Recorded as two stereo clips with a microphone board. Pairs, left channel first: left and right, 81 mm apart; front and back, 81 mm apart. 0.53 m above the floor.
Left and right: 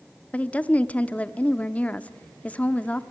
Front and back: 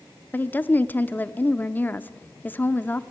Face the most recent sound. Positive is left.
turn(degrees=35)